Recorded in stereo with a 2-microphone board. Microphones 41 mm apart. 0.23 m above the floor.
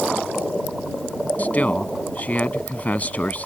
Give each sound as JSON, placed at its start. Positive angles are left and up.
{"t": 1.4, "sound": "a man speaking", "side_deg": 40}